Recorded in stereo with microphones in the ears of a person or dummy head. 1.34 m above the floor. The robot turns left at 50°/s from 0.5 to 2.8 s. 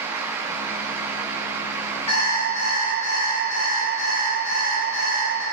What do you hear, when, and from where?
2.1 s an alarm clock: 145° left, 1.2 m; by 5.4 s 110° left, 1.2 m